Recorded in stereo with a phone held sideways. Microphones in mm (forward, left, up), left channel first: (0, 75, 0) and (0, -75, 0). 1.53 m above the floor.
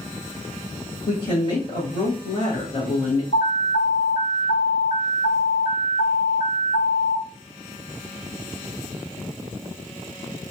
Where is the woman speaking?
40° left (ahead or behind), 1.0 m.